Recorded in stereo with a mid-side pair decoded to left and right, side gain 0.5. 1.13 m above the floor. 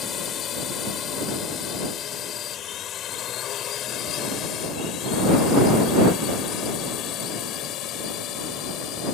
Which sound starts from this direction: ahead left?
A drone, at 0.0 s.